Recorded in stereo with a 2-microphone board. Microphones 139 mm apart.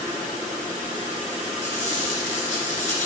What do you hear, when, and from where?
1.6 s a squeak: 65° left (ahead or behind), 2.5 m